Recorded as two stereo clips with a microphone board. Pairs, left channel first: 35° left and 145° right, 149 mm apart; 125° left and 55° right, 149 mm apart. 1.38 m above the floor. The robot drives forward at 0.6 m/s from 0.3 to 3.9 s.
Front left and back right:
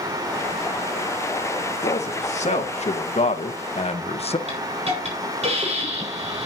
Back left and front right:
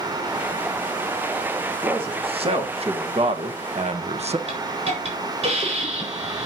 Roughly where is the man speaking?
Ahead.